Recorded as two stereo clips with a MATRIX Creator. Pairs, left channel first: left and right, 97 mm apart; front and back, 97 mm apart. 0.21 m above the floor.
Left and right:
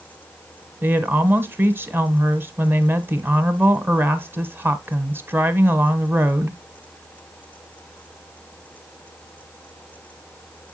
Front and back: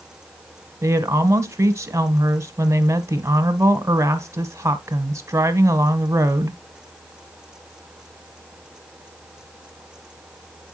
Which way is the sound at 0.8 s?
145° right.